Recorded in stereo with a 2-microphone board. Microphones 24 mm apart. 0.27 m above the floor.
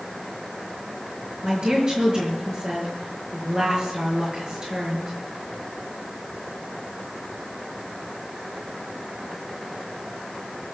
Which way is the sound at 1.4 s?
30° right (ahead or behind).